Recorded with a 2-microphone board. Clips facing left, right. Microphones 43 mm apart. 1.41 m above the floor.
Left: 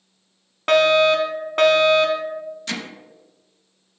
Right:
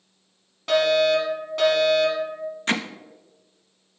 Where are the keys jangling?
I don't hear keys jangling.